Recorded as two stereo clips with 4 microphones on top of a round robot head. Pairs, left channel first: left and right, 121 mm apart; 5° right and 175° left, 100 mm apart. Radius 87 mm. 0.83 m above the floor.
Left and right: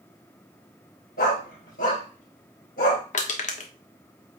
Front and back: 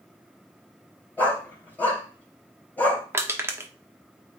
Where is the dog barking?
70° left, 4 m.